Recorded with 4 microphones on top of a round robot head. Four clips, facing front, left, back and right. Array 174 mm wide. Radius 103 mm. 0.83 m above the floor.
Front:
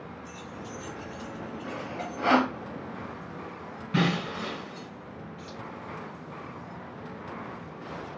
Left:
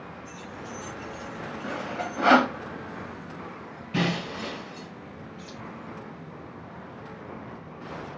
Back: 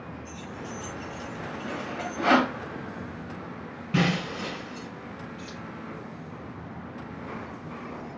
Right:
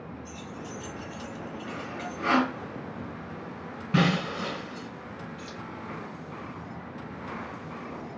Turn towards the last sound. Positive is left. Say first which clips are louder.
# right 1 dB, back 2 dB
turn(degrees=-95)